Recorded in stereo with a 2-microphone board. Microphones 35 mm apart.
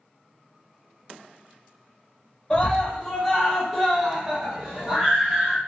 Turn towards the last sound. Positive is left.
turn(degrees=-20)  # may be behind; listen again after turning